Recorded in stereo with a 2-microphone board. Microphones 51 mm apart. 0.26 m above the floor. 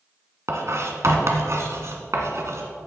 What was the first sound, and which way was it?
Writing, 65° right (ahead or behind).